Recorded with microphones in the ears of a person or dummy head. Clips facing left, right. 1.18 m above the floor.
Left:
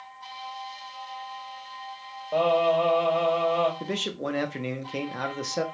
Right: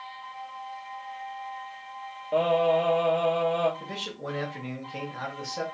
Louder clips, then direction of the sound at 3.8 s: Left 6 dB; 50° left (ahead or behind).